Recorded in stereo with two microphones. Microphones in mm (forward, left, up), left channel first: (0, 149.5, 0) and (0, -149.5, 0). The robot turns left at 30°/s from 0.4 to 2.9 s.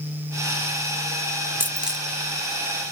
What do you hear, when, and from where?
1.6 s a dropped coin: 5° right (ahead or behind), 0.8 m; by 2.0 s centre (ahead or behind), 0.8 m